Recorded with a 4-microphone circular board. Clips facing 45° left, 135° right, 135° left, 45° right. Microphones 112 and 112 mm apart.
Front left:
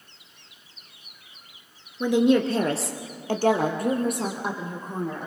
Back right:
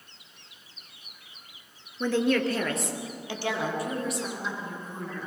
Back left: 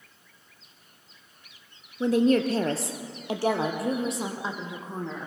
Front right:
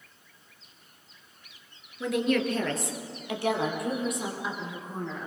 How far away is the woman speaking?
About 1.5 m.